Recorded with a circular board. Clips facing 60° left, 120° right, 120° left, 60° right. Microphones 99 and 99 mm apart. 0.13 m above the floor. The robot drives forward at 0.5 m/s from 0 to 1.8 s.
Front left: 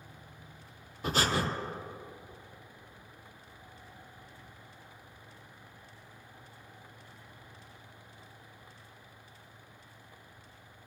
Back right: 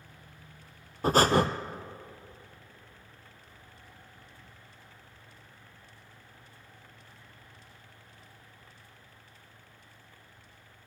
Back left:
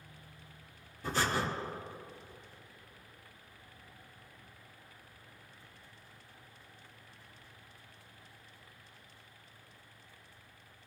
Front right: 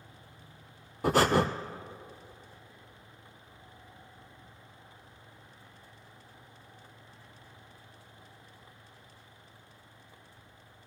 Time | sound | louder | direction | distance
1.0 | breathing | back right 8 dB, front right 9 dB | 70° right | 0.7 m